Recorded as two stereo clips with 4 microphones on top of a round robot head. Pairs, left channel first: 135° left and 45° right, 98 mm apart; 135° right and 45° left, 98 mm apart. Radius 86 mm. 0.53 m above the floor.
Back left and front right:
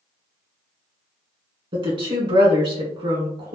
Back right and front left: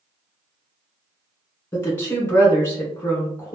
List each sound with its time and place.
1.7 s a woman speaking: 70° right, 1.9 m